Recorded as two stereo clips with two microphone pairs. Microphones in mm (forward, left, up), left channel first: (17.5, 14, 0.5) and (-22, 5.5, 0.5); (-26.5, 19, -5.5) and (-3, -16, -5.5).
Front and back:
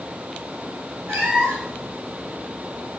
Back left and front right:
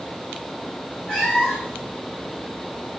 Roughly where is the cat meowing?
Behind.